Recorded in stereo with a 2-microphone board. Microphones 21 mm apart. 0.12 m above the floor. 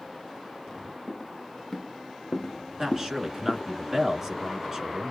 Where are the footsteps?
5° left (ahead or behind), 1.5 m; by 3.6 s 80° left, 0.6 m.